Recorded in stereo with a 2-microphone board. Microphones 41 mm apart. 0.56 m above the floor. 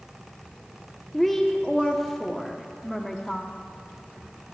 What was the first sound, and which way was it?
A woman speaking, 5° left (ahead or behind).